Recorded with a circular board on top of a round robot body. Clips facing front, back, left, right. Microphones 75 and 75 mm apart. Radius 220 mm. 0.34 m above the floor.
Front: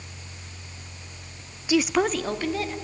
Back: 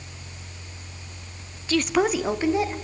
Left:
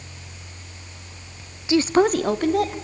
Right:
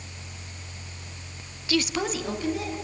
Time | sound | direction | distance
1.7 | a woman speaking | 55° left | 0.9 m